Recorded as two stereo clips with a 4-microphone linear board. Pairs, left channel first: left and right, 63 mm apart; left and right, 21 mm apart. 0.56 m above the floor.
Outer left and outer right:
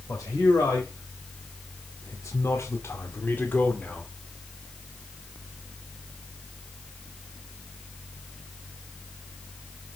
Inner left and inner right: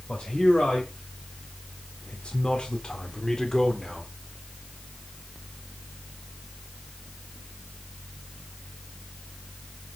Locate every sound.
0.1 s a man speaking: 55° left (ahead or behind), 3.5 m; by 4.1 s 15° left (ahead or behind), 2 m